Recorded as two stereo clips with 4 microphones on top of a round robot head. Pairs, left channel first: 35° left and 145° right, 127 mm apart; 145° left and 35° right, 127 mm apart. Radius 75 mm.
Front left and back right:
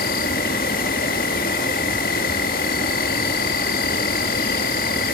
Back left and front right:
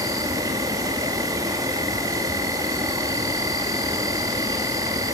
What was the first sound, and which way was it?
An insect, 25° left.